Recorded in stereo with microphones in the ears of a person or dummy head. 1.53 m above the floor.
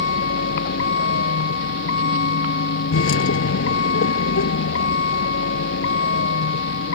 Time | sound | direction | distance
0.0 | a vehicle | 65° left (ahead or behind) | ?